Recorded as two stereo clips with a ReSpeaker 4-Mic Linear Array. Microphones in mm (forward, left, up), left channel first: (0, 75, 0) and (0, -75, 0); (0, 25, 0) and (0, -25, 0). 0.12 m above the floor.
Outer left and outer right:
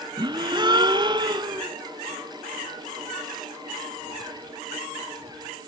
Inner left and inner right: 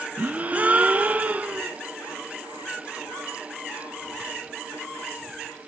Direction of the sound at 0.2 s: 30° right (ahead or behind).